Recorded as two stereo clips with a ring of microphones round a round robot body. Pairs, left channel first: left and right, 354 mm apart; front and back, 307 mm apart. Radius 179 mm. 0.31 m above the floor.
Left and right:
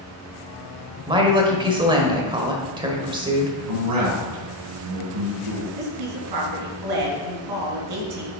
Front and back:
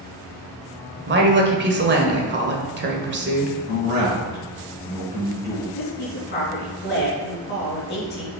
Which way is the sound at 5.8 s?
60° right.